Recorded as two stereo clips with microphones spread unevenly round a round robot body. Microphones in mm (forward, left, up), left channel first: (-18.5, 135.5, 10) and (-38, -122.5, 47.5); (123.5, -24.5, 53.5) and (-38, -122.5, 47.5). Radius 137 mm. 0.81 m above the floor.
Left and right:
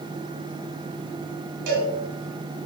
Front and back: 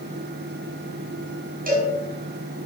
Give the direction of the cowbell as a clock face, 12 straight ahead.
4 o'clock.